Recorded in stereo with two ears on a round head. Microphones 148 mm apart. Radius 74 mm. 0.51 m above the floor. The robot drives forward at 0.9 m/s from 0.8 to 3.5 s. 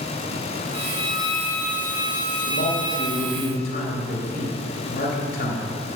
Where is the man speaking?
65° left (ahead or behind), 2.5 m; by 5.8 s 60° left (ahead or behind), 2.5 m.